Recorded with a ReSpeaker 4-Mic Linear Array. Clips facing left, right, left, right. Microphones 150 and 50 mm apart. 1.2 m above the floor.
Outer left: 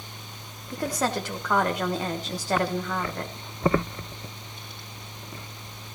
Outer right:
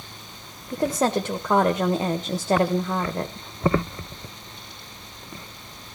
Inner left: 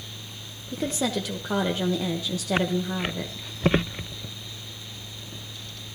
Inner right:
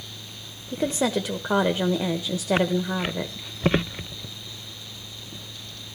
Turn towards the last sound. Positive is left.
turn(degrees=-25)  # may be behind; listen again after turning